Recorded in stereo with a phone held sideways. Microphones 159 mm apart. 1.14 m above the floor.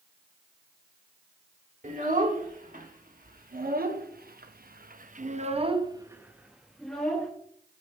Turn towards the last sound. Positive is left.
turn(degrees=10)  # may be behind; listen again after turning